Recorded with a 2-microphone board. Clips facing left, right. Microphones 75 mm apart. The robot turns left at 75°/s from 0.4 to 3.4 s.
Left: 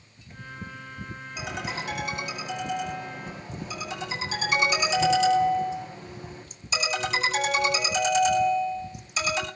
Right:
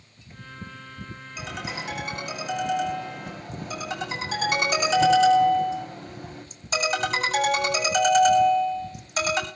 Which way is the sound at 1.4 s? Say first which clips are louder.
Left 1 dB; 15° left.